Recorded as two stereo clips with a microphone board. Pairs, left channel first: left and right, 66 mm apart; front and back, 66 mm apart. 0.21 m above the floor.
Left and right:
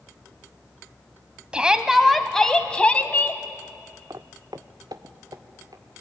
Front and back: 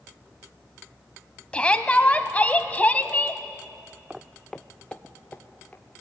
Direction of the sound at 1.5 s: 45° right.